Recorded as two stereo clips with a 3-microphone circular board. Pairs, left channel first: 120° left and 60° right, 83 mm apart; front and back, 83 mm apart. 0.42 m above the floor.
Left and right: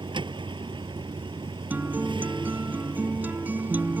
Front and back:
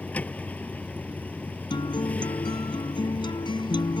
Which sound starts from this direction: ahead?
A guitar, at 1.7 s.